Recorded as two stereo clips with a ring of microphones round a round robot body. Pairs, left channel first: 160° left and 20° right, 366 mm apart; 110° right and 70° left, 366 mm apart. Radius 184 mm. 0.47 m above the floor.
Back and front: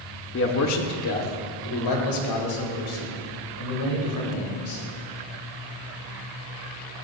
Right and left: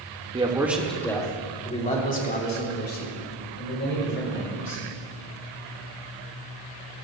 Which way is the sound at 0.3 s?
130° left.